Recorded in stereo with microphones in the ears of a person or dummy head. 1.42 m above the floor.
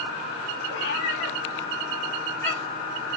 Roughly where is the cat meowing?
Left.